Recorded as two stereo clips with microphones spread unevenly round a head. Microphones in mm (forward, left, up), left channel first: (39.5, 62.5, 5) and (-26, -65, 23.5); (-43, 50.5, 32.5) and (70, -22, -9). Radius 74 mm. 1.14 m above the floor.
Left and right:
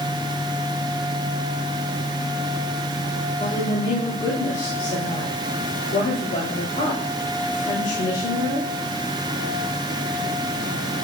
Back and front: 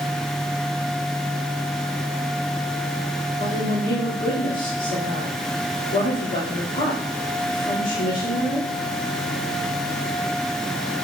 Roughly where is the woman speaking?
Behind left.